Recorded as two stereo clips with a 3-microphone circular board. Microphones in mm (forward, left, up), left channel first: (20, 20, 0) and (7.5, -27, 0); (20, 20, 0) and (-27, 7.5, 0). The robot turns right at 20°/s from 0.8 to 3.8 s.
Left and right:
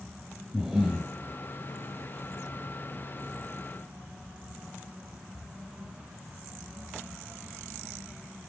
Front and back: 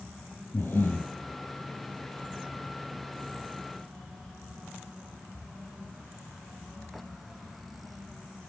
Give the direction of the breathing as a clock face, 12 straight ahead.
1 o'clock.